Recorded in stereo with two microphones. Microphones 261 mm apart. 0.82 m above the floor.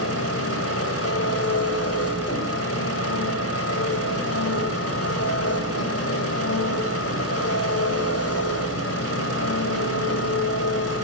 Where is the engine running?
65° left (ahead or behind), 3.5 m.